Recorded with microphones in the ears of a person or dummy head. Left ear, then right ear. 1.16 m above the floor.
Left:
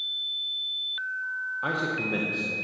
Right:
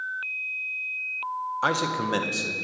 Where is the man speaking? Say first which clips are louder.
Right 4 dB; 50° right (ahead or behind), 0.8 m.